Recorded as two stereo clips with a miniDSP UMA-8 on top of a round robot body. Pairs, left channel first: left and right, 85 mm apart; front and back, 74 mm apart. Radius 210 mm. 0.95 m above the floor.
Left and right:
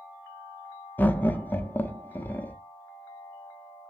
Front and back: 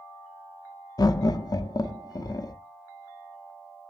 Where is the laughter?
20° left, 0.6 m.